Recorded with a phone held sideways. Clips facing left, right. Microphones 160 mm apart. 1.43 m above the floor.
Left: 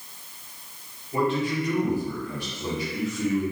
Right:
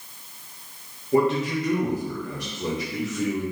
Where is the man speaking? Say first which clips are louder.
Right 4 dB; 80° right, 1.0 m.